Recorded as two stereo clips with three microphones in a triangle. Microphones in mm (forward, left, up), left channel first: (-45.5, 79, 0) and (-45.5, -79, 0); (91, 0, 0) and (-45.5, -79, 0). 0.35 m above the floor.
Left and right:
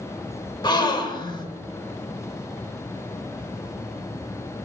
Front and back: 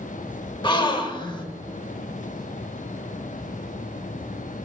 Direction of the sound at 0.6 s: 55° left.